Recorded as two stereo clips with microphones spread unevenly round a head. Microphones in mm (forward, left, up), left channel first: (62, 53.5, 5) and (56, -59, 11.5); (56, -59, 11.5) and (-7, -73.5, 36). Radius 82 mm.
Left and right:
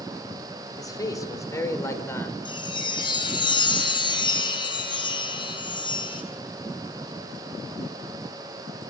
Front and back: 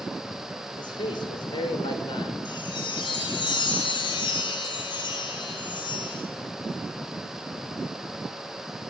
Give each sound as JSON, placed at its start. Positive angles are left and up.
{"t": 0.8, "sound": "a man speaking", "azimuth_deg": 30, "distance_m": 4.5}
{"t": 2.5, "sound": "a chime", "azimuth_deg": 40, "distance_m": 5.5}